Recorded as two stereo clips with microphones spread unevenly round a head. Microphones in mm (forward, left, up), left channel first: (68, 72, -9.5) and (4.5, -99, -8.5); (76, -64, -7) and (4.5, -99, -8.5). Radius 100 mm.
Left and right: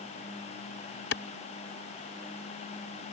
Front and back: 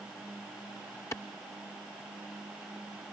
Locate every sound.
1.1 s a clap: 90° left